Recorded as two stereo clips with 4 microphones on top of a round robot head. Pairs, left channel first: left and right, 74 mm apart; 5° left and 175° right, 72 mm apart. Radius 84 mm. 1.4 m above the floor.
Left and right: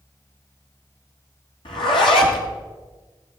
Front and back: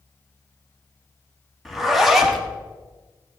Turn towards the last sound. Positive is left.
turn(degrees=100)